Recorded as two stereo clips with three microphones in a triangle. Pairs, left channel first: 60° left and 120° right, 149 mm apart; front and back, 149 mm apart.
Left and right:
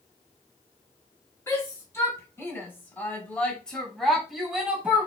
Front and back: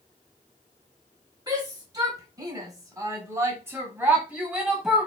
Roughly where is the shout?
Behind left.